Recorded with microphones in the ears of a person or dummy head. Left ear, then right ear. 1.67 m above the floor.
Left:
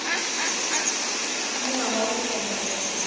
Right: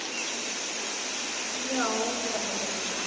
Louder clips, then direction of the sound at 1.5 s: Left 1 dB; 80° right.